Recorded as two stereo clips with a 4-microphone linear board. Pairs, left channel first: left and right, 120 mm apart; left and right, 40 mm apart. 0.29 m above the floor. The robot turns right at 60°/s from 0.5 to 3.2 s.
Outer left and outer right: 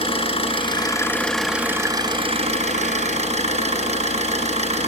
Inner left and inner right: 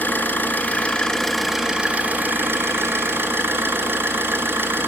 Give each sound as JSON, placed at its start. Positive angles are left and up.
{"t": 0.0, "sound": "an engine running", "azimuth_deg": 125, "distance_m": 2.5}